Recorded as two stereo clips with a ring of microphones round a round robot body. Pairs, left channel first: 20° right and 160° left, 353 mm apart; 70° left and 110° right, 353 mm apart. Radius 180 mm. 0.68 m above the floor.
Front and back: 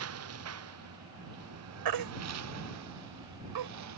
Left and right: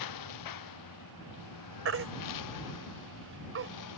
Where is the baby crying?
170° right.